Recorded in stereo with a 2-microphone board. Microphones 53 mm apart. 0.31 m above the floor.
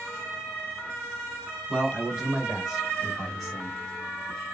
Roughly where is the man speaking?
Centre.